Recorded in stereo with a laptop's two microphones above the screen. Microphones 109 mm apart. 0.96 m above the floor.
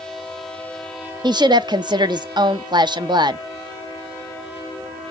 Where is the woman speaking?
45° right (ahead or behind), 0.6 m.